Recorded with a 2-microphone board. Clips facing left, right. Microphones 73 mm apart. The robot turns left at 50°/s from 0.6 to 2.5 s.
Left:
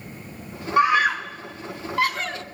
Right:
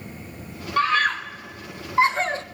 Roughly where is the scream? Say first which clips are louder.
Left 3 dB; centre.